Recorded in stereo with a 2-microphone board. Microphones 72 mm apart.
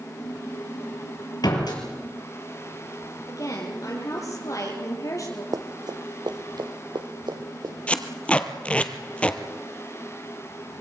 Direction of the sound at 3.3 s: 50° left (ahead or behind).